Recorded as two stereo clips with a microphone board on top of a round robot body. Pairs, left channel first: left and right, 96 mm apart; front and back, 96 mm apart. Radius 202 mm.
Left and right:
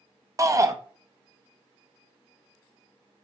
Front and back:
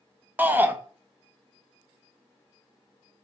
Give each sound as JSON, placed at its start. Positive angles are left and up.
{"t": 0.4, "sound": "a shout", "azimuth_deg": -120, "distance_m": 0.8}